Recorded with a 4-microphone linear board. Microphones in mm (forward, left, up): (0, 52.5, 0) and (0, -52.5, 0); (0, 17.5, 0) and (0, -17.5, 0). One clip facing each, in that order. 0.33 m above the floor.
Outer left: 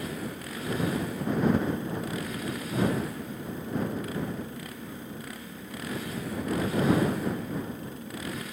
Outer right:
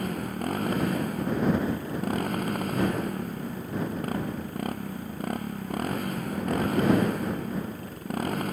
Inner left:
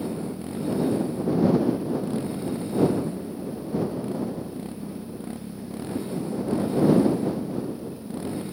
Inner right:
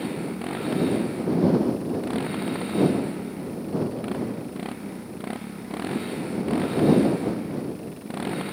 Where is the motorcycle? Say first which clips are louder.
Outer right 5 dB, inner right 1 dB; 50° right (ahead or behind).